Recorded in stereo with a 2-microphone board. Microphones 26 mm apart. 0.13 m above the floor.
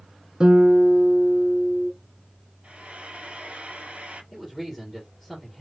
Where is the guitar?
35° right (ahead or behind), 1.1 m.